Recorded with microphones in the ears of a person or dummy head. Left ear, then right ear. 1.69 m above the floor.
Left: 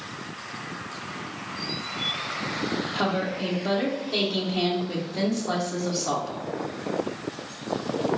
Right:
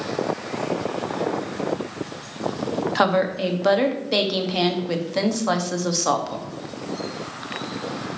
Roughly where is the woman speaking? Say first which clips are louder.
Right 9 dB; right.